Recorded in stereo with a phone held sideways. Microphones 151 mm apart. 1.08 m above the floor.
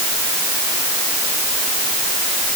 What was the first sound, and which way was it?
Only background noise.